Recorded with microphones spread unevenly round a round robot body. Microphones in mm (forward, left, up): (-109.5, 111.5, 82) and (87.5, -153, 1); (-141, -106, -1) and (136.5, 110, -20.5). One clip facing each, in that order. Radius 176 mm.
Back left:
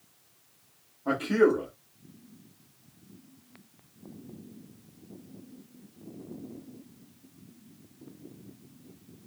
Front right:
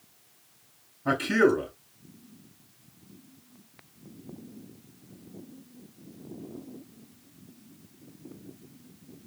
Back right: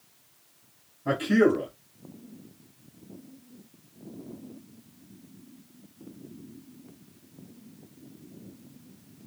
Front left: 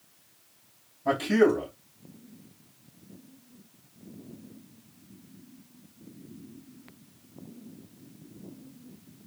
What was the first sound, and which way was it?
A man speaking, 30° right.